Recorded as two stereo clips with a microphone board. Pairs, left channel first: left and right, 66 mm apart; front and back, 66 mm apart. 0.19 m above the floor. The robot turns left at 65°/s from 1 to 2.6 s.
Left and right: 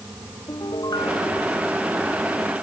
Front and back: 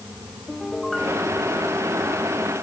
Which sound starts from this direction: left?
A piano, at 0.5 s.